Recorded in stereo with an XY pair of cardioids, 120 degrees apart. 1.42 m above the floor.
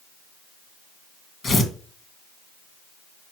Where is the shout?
No shout in this recording.